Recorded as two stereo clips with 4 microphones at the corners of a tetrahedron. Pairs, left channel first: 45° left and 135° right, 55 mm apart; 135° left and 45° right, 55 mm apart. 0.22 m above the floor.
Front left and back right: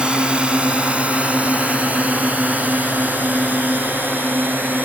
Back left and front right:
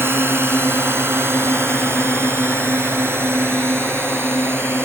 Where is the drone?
70° right; by 4.9 s 85° right.